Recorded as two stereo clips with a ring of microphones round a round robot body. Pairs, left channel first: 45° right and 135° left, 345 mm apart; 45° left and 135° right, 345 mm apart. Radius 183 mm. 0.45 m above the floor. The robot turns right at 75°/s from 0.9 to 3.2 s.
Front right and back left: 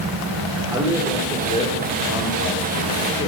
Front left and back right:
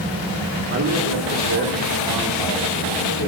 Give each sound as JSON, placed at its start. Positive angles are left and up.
{"t": 0.7, "sound": "a man speaking", "azimuth_deg": -150, "distance_m": 1.7}